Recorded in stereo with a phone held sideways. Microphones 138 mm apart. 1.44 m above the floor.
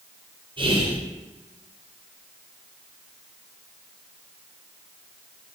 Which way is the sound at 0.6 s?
35° right (ahead or behind).